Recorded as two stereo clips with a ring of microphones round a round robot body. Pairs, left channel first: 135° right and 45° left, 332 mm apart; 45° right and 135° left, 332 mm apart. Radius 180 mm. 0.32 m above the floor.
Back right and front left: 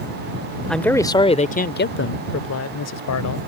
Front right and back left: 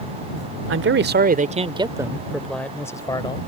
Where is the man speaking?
135° left; by 3.4 s 120° right.